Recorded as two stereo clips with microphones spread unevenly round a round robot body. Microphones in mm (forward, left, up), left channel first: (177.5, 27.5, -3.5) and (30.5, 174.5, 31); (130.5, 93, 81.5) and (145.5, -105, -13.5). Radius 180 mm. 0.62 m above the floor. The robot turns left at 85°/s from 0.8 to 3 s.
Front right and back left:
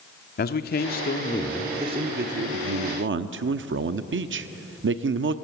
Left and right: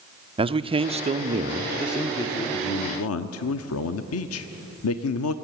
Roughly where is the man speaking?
Ahead right.